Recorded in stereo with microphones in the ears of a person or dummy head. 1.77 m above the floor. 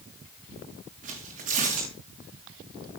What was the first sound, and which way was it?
Tearing paper, 40° right (ahead or behind).